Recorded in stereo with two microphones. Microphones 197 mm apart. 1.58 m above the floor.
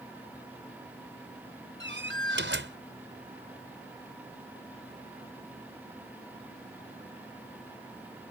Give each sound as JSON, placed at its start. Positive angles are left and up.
{"t": 1.8, "sound": "a door slam", "side_deg": -70}